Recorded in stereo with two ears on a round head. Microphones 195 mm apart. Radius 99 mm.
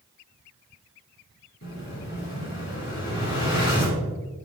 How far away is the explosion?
About 2.5 m.